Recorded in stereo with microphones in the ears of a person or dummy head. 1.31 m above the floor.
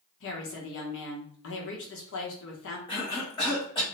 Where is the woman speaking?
65° left (ahead or behind), 0.9 m.